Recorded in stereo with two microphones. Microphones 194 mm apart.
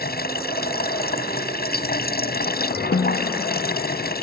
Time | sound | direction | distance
0.0 | running water | 55° left (ahead or behind) | ?
2.9 | a snare drum | 80° left | ?